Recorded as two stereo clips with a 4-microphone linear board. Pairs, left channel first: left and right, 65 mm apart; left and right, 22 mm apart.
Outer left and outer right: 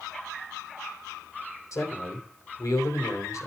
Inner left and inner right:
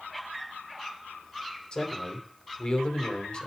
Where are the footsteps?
No footsteps in this recording.